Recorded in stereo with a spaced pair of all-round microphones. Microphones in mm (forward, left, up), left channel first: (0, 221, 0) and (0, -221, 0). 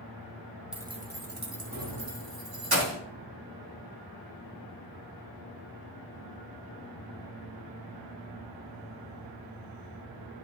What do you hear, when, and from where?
0.7 s keys jangling: centre (ahead or behind), 0.9 m; by 3.0 s 55° right (ahead or behind), 2.5 m